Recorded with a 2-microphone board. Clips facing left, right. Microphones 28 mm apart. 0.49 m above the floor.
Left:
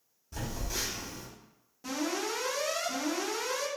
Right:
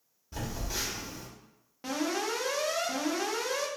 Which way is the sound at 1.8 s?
45° right (ahead or behind).